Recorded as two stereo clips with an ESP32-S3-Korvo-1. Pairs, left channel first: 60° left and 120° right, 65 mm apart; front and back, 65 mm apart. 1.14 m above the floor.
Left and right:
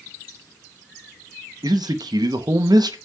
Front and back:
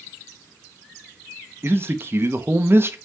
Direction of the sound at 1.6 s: 125° right.